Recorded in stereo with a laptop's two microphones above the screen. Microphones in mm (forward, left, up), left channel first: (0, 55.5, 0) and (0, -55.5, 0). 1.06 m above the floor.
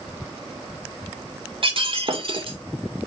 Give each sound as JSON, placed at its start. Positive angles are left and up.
{"t": 1.6, "sound": "breaking glass", "side_deg": -55, "distance_m": 2.0}